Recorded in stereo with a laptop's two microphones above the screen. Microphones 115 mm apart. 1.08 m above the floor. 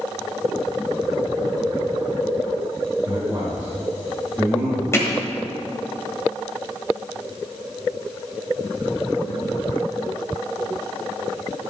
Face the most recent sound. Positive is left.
turn(degrees=25)  # may be behind; listen again after turning